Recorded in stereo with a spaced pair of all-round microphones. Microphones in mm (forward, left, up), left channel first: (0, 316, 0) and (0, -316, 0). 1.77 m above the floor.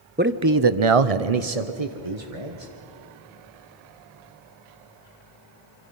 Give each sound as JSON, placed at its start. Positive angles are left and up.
{"t": 0.2, "sound": "a man speaking", "side_deg": -15, "distance_m": 0.9}